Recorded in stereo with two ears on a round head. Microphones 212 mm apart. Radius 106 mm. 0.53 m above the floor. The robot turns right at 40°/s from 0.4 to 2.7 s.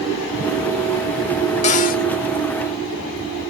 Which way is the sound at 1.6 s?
30° left (ahead or behind).